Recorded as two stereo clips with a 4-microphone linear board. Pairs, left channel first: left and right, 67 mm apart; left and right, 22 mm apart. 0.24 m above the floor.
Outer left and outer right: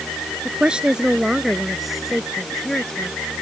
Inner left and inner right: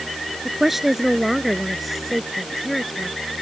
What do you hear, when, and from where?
0.5 s a woman speaking: 15° right (ahead or behind); by 3.1 s 15° left (ahead or behind)